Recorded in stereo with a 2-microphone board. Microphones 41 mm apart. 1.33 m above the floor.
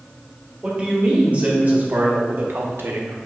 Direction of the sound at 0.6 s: 25° right (ahead or behind).